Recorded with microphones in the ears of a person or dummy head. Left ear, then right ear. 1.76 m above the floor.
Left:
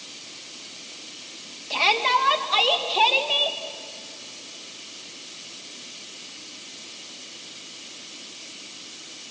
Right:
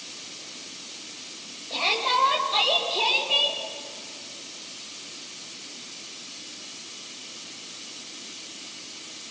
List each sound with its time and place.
1.7 s a shout: 70° left (ahead or behind), 3 m; by 3.6 s 45° left (ahead or behind), 2.5 m